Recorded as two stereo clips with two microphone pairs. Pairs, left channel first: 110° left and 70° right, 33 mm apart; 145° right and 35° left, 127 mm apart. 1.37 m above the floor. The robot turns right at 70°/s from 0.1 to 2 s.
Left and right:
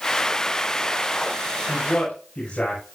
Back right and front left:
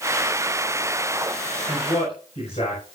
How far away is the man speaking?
About 6.5 m.